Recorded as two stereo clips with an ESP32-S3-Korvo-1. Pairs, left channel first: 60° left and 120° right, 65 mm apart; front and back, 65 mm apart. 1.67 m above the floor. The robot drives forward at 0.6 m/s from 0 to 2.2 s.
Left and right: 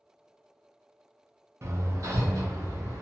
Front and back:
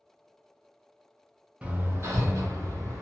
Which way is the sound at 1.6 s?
115° right.